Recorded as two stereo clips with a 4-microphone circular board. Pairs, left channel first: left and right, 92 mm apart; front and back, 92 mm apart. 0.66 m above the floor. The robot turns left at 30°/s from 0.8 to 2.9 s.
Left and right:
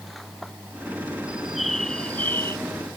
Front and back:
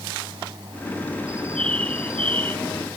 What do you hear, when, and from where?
1.3 s a bird: 170° right; by 2.6 s 150° left